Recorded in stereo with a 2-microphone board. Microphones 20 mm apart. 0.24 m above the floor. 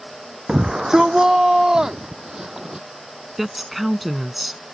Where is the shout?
30° right (ahead or behind); by 2.9 s 25° right (ahead or behind).